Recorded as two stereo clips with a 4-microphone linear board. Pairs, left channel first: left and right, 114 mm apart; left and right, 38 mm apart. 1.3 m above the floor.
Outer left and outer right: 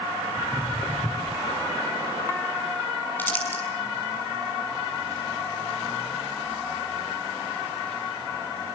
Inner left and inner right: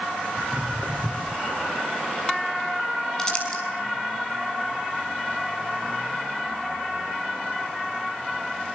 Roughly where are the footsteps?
Centre.